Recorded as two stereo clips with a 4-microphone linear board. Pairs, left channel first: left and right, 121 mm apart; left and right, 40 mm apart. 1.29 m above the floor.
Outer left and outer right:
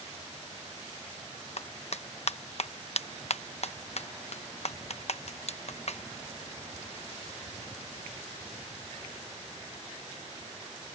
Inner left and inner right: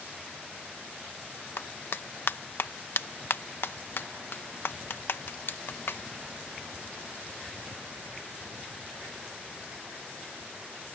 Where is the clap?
60° left (ahead or behind).